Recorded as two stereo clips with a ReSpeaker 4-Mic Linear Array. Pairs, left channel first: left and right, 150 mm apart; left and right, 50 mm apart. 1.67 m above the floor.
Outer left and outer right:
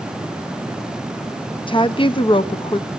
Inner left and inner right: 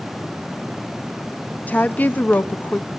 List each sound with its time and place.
1.7 s a woman speaking: 35° left (ahead or behind), 0.8 m